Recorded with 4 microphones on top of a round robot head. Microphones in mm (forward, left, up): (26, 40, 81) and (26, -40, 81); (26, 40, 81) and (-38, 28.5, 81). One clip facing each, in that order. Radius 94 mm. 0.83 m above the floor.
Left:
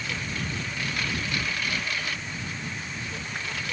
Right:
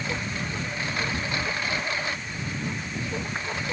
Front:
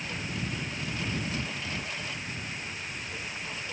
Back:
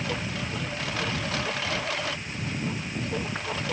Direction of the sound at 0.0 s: 155° right.